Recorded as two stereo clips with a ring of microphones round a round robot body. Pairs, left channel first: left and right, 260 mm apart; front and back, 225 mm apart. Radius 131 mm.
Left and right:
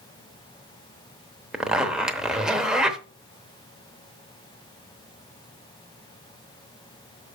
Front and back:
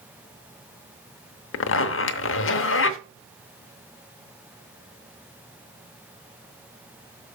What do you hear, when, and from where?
1.5 s a zipper: 5° right, 0.8 m